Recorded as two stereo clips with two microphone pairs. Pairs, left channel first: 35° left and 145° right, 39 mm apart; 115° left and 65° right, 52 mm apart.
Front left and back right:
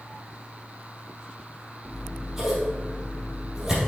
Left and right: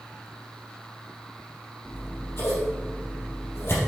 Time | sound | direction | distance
1.9 | scissors | 140° left | 3 m